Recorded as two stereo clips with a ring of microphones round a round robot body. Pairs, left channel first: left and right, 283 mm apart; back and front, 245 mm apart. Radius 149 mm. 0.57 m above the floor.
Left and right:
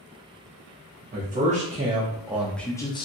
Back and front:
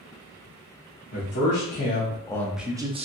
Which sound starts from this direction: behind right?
A man speaking, at 1.1 s.